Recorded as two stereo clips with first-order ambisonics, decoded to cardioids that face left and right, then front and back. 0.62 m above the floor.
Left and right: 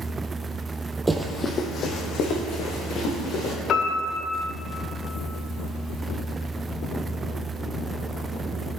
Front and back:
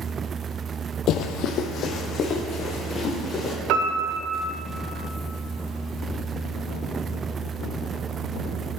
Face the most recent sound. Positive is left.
turn(degrees=145)